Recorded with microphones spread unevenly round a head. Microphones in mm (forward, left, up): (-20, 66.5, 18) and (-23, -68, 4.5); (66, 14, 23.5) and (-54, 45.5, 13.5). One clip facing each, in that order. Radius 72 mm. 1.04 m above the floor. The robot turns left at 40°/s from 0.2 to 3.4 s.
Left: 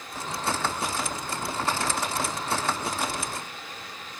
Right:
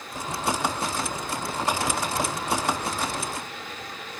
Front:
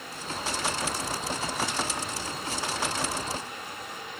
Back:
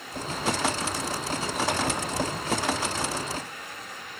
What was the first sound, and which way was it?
Only background noise.